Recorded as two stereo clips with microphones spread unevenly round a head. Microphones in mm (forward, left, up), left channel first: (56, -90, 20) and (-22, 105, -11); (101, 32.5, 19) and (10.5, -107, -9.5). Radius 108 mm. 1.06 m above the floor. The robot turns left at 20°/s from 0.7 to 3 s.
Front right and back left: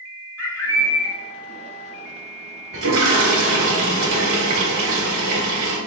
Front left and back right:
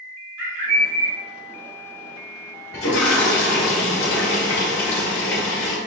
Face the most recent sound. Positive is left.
turn(degrees=95)